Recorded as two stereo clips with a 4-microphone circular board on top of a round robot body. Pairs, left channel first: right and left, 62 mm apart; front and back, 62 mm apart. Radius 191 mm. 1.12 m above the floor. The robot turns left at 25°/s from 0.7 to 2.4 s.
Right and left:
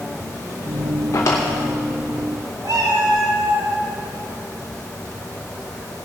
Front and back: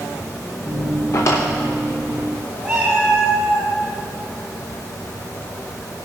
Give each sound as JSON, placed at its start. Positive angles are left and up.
{"t": 1.1, "sound": "a drawer", "azimuth_deg": -40, "distance_m": 0.5}
{"t": 2.6, "sound": "a cat meowing", "azimuth_deg": 105, "distance_m": 1.3}